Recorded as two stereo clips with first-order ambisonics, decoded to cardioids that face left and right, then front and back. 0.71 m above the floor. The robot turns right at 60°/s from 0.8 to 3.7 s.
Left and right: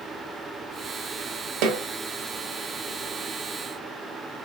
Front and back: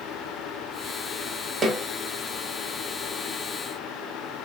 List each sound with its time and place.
1.6 s a snare drum: 110° right, 0.7 m; by 1.8 s 100° right, 0.7 m